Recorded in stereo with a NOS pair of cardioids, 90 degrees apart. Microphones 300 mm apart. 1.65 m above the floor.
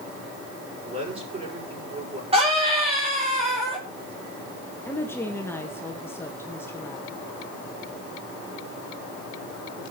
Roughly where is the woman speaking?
Ahead.